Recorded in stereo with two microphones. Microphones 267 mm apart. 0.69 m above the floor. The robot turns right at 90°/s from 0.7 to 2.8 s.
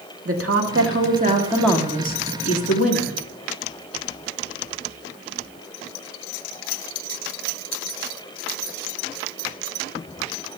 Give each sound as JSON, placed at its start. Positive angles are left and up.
{"t": 0.2, "sound": "a woman speaking", "azimuth_deg": -85, "distance_m": 1.8}